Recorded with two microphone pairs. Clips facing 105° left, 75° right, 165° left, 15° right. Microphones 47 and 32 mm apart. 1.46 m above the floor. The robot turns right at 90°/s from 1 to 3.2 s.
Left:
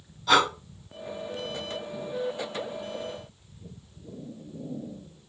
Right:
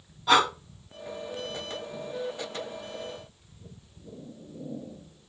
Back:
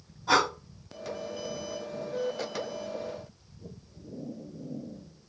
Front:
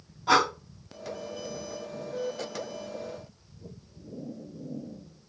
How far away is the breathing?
About 1.8 m.